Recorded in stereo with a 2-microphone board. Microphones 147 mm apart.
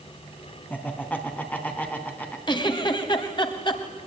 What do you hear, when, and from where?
0.7 s laughter: 10° left (ahead or behind), 3 m
2.5 s a giggle: 35° left (ahead or behind), 1.8 m